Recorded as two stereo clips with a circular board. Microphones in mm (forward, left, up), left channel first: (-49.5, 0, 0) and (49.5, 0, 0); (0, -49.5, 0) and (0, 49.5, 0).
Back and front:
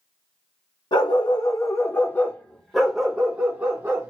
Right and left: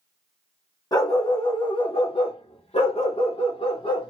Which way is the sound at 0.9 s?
145° right.